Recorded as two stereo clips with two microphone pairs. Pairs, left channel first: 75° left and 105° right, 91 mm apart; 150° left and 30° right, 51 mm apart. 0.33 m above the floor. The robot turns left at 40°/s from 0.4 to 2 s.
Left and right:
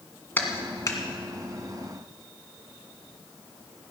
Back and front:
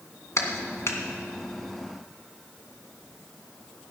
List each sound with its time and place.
0.4 s a clap: 145° left, 1.9 m; by 1.0 s 125° left, 1.9 m